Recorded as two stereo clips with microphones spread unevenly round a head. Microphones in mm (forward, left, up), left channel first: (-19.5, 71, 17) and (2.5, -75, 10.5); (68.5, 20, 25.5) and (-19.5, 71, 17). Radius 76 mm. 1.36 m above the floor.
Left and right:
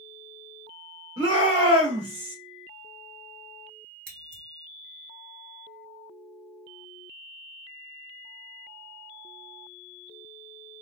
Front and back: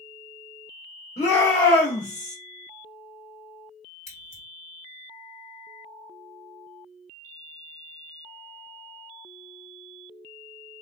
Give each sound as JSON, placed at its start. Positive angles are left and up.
{"t": 1.2, "sound": "a shout", "azimuth_deg": -20, "distance_m": 1.2}
{"t": 4.1, "sound": "scissors", "azimuth_deg": -55, "distance_m": 1.8}